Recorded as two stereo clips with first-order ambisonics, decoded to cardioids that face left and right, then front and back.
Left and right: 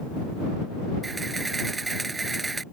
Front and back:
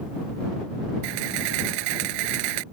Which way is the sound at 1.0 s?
170° right.